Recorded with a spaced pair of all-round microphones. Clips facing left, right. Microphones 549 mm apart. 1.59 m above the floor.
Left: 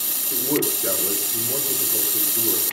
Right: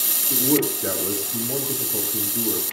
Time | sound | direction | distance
0.3 | a man speaking | 60° right (ahead or behind) | 4 m